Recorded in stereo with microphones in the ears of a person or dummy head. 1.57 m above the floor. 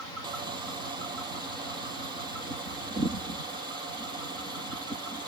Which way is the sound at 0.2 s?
25° right (ahead or behind).